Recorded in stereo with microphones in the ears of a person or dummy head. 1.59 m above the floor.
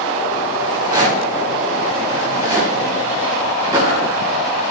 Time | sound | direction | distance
0.6 | a rattle | 25° right (ahead or behind) | 4 m